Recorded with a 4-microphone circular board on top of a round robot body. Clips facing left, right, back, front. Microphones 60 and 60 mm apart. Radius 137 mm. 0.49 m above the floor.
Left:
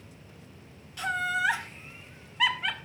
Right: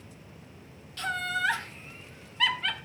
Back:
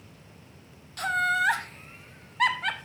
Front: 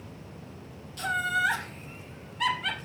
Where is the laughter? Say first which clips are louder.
Left 2 dB, back 2 dB; 165° left, 1.8 m.